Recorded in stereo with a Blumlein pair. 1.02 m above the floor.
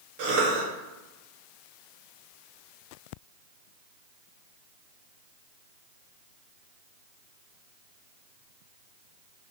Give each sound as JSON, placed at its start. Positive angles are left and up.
{"t": 0.2, "sound": "a cough", "azimuth_deg": -50, "distance_m": 0.6}